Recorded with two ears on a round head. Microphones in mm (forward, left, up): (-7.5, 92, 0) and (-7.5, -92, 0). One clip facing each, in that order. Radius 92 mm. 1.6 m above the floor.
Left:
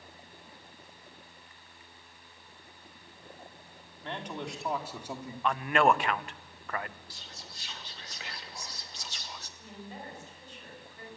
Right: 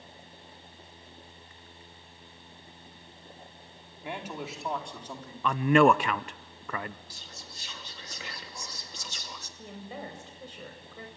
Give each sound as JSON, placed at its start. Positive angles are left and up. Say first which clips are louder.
{"t": 4.0, "sound": "a man speaking", "louder": "right 1 dB", "side_deg": -10, "distance_m": 4.0}
{"t": 5.4, "sound": "a man speaking", "louder": "right 5 dB", "side_deg": -80, "distance_m": 0.9}
{"t": 7.1, "sound": "whispering", "louder": "right 1 dB", "side_deg": -80, "distance_m": 2.5}
{"t": 9.6, "sound": "a woman speaking", "louder": "right 5 dB", "side_deg": -60, "distance_m": 7.0}